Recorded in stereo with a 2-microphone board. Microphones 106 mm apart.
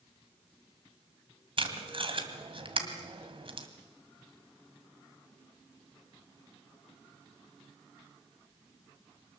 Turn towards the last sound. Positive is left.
turn(degrees=-55)  # may be behind; listen again after turning